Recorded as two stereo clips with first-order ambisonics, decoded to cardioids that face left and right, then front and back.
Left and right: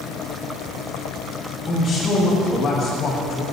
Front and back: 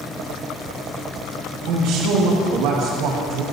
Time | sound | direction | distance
1.6 | a man speaking | 160° left | 2.5 m